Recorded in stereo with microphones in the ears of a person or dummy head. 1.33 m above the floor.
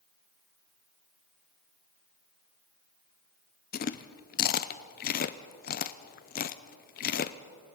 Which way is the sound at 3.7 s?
45° left (ahead or behind).